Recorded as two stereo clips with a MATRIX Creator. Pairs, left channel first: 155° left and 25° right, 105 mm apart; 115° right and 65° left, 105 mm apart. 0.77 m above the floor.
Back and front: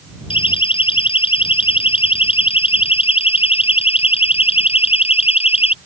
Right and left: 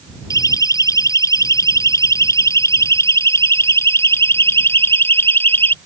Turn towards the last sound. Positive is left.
turn(degrees=180)